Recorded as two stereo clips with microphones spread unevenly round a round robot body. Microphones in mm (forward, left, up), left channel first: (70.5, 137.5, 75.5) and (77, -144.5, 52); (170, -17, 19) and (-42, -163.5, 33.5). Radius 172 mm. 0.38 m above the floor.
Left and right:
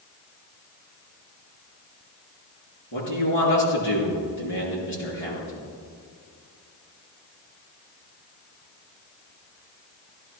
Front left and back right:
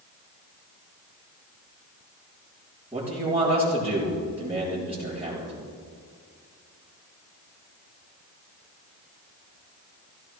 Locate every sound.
2.9 s a man speaking: 130° left, 6.5 m